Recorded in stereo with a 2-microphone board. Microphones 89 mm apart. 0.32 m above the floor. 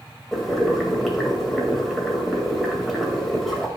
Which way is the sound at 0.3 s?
Centre (ahead or behind).